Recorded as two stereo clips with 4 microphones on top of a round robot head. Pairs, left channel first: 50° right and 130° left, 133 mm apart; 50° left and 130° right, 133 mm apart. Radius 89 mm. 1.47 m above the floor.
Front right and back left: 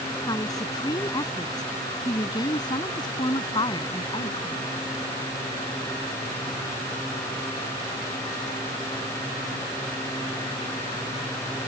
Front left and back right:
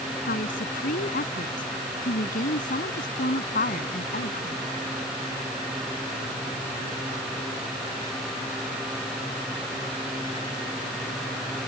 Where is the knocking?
I don't hear knocking.